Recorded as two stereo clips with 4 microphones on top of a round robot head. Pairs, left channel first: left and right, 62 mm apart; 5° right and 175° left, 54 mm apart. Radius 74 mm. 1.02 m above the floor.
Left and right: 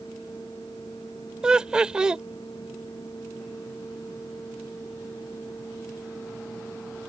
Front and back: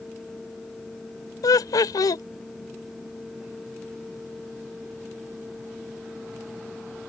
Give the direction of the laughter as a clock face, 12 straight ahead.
12 o'clock.